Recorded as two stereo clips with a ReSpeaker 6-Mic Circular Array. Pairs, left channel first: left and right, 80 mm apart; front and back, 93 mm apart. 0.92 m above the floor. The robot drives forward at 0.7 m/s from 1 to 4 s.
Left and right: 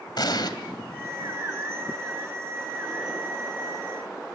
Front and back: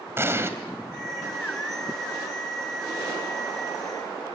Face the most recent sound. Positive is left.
turn(degrees=150)